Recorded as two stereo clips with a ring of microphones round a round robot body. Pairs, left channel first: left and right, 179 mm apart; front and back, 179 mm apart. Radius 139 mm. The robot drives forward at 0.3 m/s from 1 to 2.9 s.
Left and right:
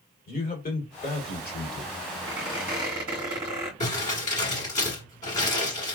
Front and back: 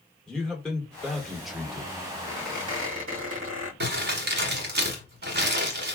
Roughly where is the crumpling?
Behind left.